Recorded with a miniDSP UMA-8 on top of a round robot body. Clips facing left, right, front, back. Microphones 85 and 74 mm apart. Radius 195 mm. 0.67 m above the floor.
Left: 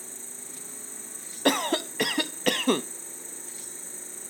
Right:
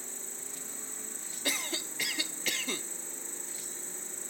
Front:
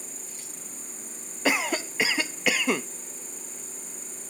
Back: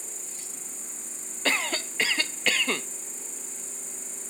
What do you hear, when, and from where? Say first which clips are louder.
0.0 s an insect: left 1 dB, front 1 dB; 40° left
1.4 s a cough: left 13 dB, front 3 dB; 75° left